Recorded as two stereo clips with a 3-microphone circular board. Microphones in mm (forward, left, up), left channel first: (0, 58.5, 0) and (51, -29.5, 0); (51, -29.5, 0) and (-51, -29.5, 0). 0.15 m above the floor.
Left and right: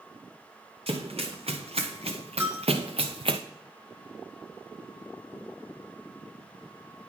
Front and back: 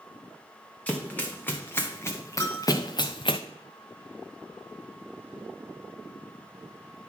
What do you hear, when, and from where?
0.9 s running footsteps: 75° right, 1.9 m; by 3.4 s 30° right, 0.7 m
2.4 s a bell: 30° right, 1.2 m